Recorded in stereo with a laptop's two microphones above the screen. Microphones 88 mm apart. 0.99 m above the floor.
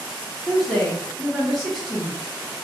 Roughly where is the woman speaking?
Centre.